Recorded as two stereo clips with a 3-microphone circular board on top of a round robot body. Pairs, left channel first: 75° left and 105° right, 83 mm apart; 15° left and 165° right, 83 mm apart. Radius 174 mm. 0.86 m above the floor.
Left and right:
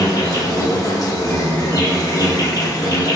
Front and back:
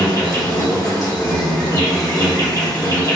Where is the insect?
50° left, 1.3 m.